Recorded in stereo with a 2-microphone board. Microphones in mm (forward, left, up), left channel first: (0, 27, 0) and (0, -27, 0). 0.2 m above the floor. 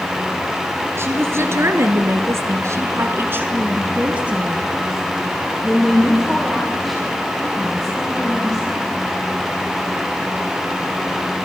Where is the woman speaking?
50° right (ahead or behind), 3.5 m; by 9.0 s 10° left (ahead or behind), 9 m.